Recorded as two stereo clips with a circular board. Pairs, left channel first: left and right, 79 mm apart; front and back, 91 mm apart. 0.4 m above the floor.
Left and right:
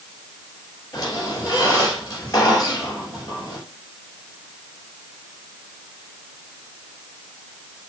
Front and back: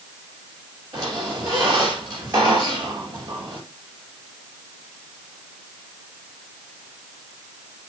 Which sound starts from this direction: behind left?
A squeak, at 0.9 s.